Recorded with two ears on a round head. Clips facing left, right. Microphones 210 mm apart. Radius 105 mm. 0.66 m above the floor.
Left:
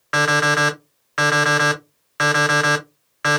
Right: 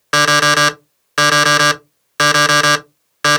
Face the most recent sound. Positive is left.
turn(degrees=-55)  # may be behind; listen again after turning